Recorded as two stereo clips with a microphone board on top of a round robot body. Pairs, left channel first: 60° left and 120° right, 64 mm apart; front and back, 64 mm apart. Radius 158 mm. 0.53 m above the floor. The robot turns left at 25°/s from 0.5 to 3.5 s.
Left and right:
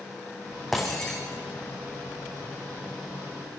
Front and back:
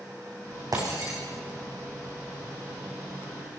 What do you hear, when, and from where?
0.7 s breaking glass: 150° left, 4.5 m; by 1.2 s 140° left, 4.5 m